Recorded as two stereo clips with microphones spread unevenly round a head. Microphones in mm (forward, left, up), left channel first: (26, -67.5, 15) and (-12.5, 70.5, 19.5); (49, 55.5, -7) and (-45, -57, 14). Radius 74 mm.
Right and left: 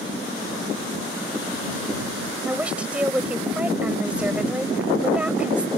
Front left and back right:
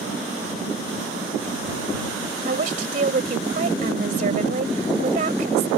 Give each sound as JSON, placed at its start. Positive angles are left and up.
{"t": 2.5, "sound": "a woman speaking", "azimuth_deg": -170}